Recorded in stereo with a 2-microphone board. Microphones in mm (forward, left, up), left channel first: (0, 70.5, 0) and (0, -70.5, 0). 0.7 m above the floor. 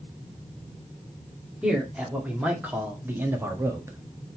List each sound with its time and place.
1.6 s a man speaking: 5° right (ahead or behind), 2 m; by 4.0 s 20° right (ahead or behind), 1.4 m